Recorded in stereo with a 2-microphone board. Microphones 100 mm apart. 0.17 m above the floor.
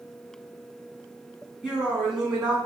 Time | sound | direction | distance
1.6 | a woman speaking | 5° right (ahead or behind) | 1.8 m